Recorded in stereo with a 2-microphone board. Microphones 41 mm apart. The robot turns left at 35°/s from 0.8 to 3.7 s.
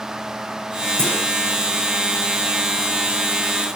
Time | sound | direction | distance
1.0 | a clunk | 80° right | 7 m